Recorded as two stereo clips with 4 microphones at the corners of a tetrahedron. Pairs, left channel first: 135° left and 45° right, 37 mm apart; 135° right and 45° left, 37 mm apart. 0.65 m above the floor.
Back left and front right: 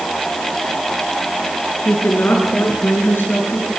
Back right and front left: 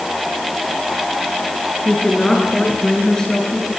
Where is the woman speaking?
150° left, 8 m; by 3.7 s 155° left, 9 m.